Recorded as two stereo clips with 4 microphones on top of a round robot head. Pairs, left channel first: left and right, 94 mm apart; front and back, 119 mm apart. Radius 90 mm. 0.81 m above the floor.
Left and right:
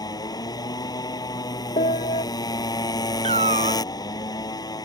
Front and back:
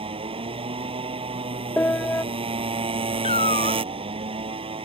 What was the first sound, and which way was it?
A motorcycle, 135° left.